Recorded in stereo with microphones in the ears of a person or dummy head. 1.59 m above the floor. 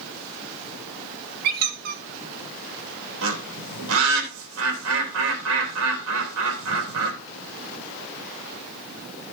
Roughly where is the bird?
Right.